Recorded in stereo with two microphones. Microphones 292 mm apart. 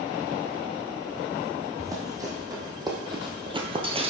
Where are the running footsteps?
10° right (ahead or behind), 1.9 m; by 4.1 s 20° right (ahead or behind), 0.9 m.